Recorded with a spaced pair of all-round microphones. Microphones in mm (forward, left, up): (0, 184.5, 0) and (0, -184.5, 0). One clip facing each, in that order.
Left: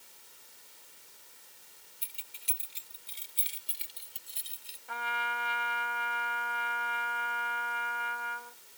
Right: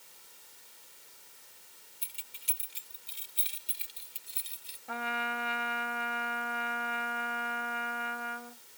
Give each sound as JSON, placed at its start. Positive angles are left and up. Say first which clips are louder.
{"t": 2.0, "sound": "keys jangling", "louder": "even", "side_deg": -30}
{"t": 4.9, "sound": "a trumpet", "louder": "right 4 dB", "side_deg": -60}